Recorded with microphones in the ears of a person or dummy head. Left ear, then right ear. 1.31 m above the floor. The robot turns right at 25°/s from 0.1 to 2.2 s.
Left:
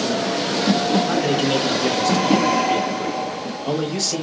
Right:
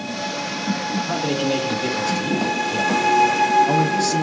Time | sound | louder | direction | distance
1.1 | a man speaking | left 2 dB | 70° left (ahead or behind) | 3 m